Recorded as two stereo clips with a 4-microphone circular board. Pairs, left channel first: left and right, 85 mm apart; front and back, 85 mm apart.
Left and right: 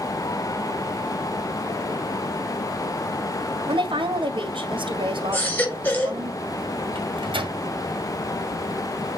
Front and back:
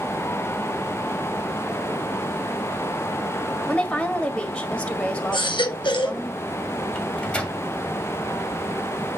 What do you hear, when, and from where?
3.7 s a woman speaking: 80° right, 1.9 m
5.3 s a baby crying: 20° left, 3 m
7.0 s a microwave: 80° right, 2.0 m